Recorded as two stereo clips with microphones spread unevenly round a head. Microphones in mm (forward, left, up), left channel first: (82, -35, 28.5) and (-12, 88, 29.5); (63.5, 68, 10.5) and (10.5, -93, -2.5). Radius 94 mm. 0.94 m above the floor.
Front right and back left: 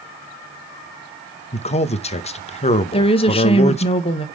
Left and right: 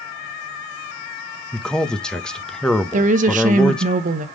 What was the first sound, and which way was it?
A man speaking, 15° right.